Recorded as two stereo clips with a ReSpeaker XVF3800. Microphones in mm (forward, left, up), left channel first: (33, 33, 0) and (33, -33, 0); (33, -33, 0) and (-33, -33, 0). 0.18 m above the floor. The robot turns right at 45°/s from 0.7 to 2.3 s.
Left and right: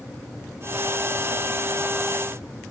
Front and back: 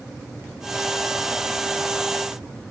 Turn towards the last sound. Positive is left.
No sound to turn to.